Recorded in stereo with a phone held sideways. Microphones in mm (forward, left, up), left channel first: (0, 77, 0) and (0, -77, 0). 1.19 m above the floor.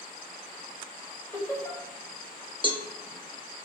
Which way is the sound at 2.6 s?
35° right (ahead or behind).